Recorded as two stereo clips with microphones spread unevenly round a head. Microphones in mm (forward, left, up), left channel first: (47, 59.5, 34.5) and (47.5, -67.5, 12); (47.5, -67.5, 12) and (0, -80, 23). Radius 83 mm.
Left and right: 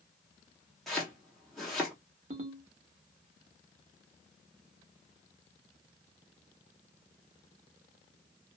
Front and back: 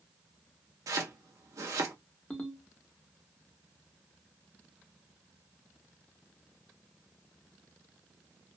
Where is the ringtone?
55° right, 0.9 m.